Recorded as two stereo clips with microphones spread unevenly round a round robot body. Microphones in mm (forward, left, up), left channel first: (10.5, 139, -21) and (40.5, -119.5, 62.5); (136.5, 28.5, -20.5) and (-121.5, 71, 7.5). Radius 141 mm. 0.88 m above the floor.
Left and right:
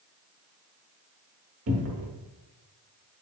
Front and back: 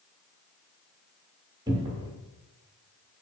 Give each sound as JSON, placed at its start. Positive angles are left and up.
{"t": 1.7, "sound": "a cupboard door", "azimuth_deg": -115, "distance_m": 0.8}